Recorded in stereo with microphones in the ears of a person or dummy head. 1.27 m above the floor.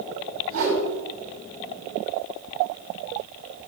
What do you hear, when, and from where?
0.5 s a whoosh: 75° right (ahead or behind), 6.5 m